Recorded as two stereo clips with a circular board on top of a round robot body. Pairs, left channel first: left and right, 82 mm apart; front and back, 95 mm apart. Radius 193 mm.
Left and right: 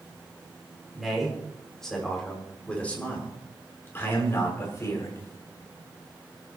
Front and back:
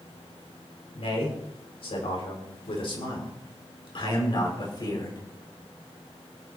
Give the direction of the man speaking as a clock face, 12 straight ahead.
12 o'clock.